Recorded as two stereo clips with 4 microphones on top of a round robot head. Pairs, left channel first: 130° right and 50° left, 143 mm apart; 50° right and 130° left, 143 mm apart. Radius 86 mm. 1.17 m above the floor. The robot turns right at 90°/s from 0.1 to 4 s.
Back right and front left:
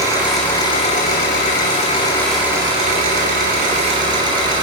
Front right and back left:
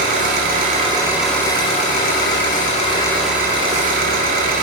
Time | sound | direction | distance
0.0 | an engine running | 115° left | 8.5 m